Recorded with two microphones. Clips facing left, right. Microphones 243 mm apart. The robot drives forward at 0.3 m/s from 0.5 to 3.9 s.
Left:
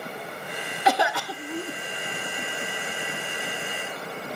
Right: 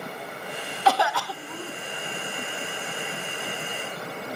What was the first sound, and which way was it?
A cough, 15° left (ahead or behind).